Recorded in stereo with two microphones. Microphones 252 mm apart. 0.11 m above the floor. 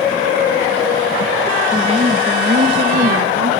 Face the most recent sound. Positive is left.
turn(degrees=-60)  # may be behind; listen again after turning